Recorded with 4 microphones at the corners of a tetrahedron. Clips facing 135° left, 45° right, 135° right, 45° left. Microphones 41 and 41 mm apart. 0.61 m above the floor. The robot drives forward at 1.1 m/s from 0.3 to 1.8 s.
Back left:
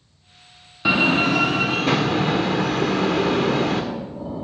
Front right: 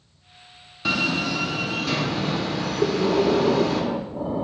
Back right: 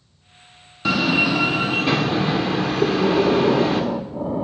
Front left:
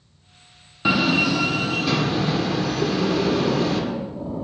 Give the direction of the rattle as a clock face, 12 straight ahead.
No rattle in this recording.